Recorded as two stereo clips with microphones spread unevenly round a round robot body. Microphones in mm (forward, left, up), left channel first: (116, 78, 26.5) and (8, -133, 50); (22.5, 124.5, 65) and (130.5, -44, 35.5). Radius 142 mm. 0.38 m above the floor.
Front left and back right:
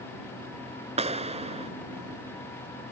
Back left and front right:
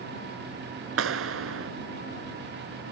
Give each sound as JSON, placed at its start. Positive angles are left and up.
{"t": 1.0, "sound": "a clap", "azimuth_deg": -50}